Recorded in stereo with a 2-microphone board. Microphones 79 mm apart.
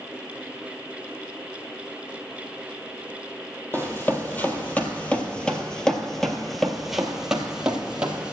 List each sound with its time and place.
3.7 s running footsteps: 25° left (ahead or behind), 1.8 m; by 8.3 s 15° right (ahead or behind), 1.9 m